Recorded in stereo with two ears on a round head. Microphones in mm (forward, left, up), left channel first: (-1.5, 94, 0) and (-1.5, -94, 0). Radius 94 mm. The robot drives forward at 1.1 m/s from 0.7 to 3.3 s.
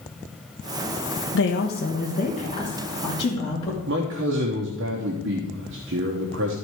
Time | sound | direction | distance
1.3 | a woman speaking | 65° left (ahead or behind) | 0.9 m
3.9 | a man speaking | 60° right (ahead or behind) | 1.1 m